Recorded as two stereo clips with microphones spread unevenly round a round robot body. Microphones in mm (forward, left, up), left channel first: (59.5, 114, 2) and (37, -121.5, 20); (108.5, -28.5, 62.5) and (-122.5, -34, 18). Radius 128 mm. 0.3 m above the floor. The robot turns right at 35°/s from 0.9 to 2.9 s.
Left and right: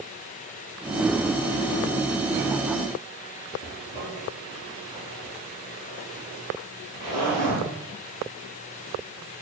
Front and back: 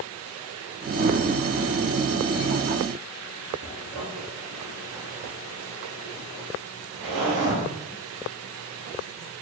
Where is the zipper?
170° right, 2 m.